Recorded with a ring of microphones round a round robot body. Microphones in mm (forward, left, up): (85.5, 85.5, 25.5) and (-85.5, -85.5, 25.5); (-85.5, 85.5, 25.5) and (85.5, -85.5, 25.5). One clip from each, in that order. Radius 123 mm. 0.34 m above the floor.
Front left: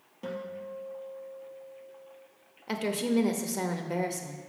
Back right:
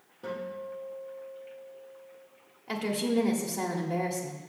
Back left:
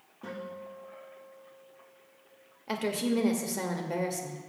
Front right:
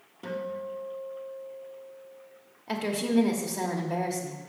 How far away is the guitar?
About 2.5 m.